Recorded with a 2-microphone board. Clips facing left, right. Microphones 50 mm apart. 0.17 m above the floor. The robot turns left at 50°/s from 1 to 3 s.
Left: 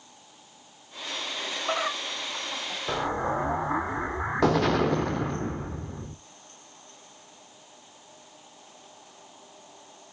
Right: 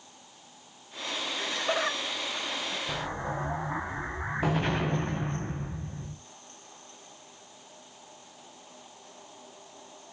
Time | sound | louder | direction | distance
1.4 | laughter | even | 5° left (ahead or behind) | 1.8 m
2.9 | an explosion | left 6 dB | 85° left | 1.3 m